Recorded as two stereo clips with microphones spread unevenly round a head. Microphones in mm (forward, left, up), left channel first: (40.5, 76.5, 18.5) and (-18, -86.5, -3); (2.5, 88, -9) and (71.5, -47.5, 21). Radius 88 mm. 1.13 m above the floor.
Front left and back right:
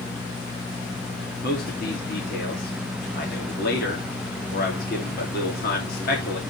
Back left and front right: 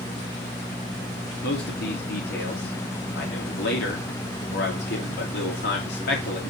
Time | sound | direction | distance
1.4 | a man speaking | 110° left | 1.7 m